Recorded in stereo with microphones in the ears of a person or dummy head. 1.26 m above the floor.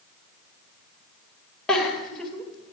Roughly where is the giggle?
Centre.